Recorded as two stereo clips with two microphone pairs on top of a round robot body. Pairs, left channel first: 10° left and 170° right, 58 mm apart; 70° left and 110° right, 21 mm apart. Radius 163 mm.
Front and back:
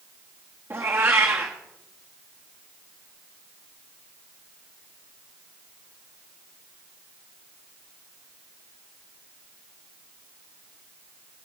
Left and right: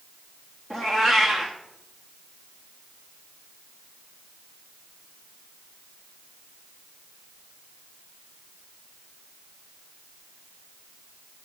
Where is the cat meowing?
140° left, 2.5 m.